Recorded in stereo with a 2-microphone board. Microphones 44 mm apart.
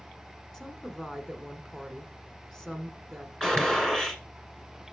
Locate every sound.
0.5 s a woman speaking: 5° left (ahead or behind), 1.4 m
3.4 s a gunshot: 10° left (ahead or behind), 1.7 m